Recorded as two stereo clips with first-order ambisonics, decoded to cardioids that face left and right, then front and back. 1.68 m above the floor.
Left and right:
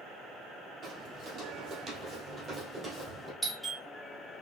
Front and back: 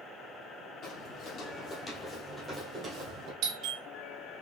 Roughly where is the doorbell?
Behind.